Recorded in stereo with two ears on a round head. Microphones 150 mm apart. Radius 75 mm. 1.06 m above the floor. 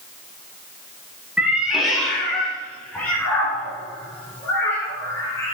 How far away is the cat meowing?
About 1.0 m.